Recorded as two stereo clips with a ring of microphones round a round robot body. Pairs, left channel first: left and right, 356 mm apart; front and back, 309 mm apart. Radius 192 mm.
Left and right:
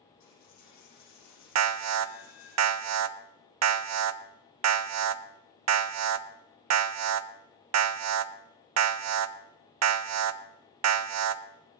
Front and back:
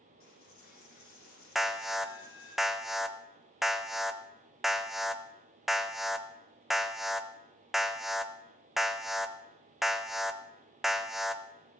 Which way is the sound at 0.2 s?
45° left.